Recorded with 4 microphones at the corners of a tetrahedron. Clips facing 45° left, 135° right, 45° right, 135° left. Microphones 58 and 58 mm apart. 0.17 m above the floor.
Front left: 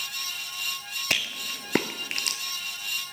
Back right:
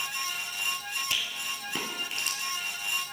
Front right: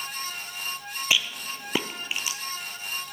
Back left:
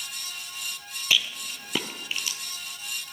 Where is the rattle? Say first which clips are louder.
Front left 3 dB, even; 25° left, 0.5 m.